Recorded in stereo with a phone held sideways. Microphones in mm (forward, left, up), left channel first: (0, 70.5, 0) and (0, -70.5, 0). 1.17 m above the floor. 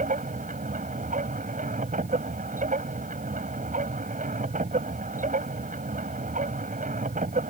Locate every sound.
0.0 s a machine running: 70° right (ahead or behind)